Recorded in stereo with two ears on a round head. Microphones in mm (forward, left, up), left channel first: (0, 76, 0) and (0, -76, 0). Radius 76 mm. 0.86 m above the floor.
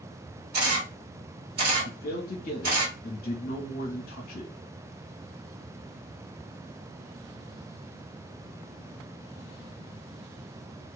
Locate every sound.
0.5 s a camera shutter: 60° right (ahead or behind), 1.5 m
1.9 s a man speaking: 55° left (ahead or behind), 1.2 m